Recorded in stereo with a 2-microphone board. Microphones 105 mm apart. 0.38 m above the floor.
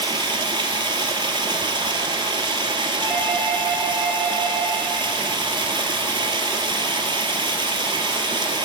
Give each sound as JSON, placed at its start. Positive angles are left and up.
{"t": 0.0, "sound": "running water", "side_deg": -50, "distance_m": 0.9}
{"t": 3.0, "sound": "a doorbell", "side_deg": -10, "distance_m": 1.9}